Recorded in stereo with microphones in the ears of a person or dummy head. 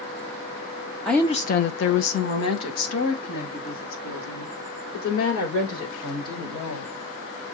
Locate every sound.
1.1 s a woman speaking: 5° left (ahead or behind), 0.5 m; by 6.9 s 70° left (ahead or behind), 5.5 m